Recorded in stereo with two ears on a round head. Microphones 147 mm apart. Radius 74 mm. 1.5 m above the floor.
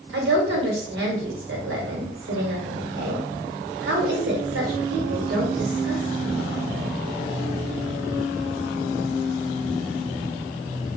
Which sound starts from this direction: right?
A woman speaking, at 0.1 s.